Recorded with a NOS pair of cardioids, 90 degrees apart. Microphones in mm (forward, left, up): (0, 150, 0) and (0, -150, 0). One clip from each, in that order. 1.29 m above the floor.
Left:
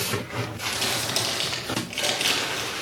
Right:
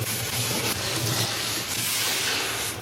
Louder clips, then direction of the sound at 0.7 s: Left 2 dB; 70° left.